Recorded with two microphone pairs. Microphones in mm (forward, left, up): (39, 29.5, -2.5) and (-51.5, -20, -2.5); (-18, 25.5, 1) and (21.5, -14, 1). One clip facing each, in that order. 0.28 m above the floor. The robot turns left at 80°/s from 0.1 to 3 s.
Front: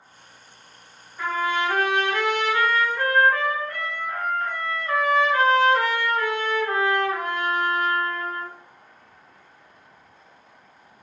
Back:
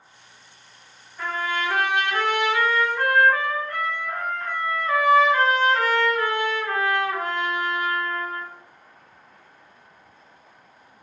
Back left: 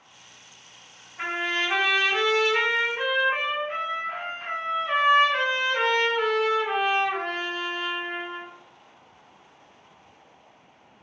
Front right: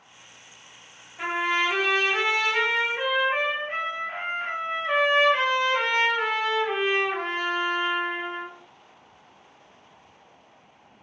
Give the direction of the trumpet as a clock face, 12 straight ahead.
8 o'clock.